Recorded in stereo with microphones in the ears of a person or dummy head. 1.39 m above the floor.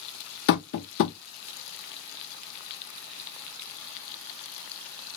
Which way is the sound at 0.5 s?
60° left (ahead or behind).